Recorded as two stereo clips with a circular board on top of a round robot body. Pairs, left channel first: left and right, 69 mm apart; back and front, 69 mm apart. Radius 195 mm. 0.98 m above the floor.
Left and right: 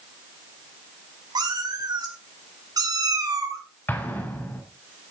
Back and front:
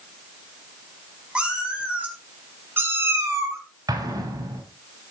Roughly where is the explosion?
Ahead left.